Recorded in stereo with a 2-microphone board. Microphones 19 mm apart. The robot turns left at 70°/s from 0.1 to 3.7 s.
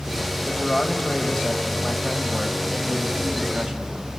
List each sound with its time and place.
0.5 s a man speaking: 115° left, 2.5 m; by 4.1 s 110° right, 2.5 m